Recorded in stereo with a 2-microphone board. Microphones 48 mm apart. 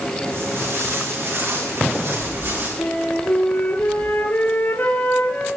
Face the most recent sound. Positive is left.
turn(degrees=45)  # may be behind; listen again after turning